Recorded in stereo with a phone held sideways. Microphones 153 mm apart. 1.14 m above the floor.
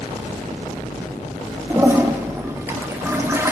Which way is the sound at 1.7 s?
15° right (ahead or behind).